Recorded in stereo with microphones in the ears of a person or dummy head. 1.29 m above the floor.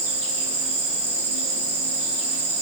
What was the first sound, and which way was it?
An insect, 45° right (ahead or behind).